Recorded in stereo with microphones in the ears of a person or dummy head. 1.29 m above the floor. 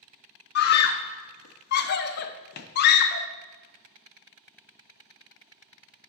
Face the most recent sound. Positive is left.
turn(degrees=55)  # may be behind; listen again after turning